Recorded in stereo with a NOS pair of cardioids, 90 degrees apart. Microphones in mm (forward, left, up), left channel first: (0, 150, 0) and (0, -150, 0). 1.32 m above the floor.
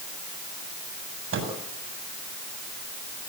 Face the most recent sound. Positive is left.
turn(degrees=-45)